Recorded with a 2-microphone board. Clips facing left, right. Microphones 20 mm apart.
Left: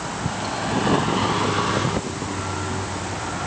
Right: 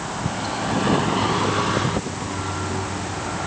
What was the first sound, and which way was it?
Only background noise.